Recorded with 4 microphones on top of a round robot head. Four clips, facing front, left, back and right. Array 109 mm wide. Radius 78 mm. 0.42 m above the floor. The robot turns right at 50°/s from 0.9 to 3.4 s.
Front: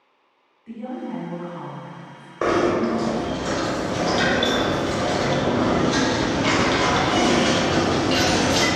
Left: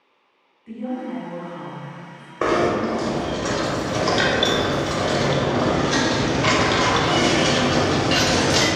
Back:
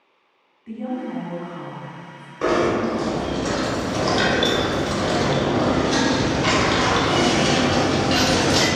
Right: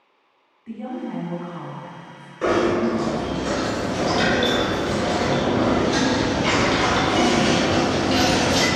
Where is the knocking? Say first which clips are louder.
Even, even; 50° left, 1.0 m; by 8.7 s 100° left, 1.0 m.